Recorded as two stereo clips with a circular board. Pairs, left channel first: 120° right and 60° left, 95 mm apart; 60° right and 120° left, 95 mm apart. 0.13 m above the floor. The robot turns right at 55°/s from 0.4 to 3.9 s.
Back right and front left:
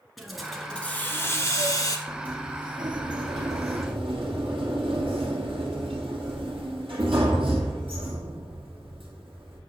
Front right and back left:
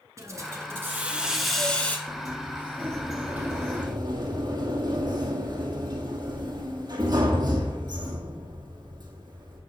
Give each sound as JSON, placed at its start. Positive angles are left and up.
{"t": 0.2, "sound": "a hiss", "azimuth_deg": 150, "distance_m": 1.2}
{"t": 2.1, "sound": "a sliding door", "azimuth_deg": -25, "distance_m": 1.7}